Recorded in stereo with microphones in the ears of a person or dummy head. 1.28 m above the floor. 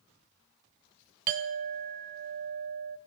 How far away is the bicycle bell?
No bicycle bell in this recording.